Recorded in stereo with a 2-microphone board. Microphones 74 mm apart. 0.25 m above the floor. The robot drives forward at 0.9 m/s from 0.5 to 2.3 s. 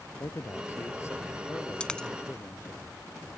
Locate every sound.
0.2 s a man speaking: 40° left (ahead or behind); by 2.8 s 30° left (ahead or behind)
1.8 s a dropped coin: 15° left (ahead or behind); by 2.1 s 10° left (ahead or behind)